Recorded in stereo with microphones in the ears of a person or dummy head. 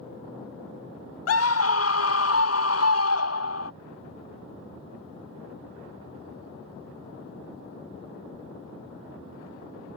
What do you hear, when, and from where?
1.3 s a scream: 75° left (ahead or behind)